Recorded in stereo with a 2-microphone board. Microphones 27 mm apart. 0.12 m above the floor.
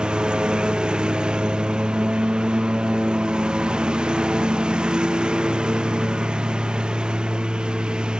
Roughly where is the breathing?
No breathing in this recording.